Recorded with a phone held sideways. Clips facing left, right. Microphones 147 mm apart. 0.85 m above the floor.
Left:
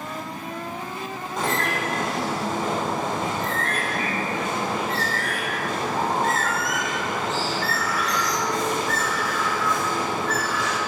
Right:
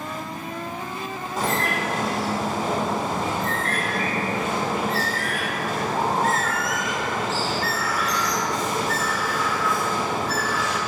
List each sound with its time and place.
1.4 s a bird: centre (ahead or behind), 3 m